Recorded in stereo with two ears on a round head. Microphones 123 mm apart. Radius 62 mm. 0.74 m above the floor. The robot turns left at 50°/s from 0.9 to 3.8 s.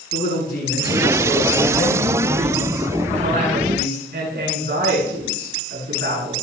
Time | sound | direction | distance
0.1 | a woman speaking | 70° left | 8.5 m